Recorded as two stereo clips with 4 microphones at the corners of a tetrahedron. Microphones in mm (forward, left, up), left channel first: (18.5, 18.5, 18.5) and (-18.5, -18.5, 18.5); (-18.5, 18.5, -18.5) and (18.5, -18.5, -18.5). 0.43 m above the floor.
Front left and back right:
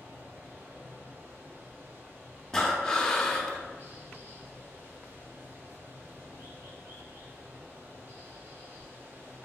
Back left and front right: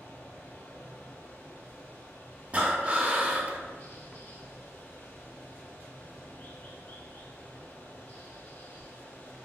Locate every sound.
0.0 s running water: straight behind, 1.3 m
2.5 s breathing: 25° right, 0.5 m